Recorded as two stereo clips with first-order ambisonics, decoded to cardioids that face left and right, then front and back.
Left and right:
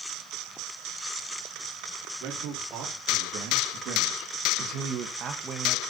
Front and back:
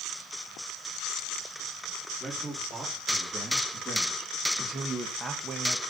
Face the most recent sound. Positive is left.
turn(degrees=-150)